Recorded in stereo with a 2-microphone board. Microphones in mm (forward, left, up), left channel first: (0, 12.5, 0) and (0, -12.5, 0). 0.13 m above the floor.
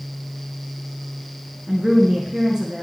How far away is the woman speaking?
About 1.5 m.